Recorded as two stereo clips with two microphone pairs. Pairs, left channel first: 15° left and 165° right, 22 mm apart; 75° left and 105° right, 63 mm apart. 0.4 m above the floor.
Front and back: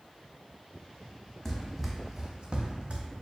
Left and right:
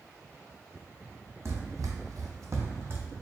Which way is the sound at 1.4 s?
70° right.